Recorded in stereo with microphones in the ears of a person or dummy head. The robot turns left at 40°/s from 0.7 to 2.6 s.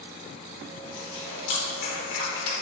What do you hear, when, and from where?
0.8 s chewing: 85° left, 3.5 m; by 2.5 s 20° left (ahead or behind), 3.5 m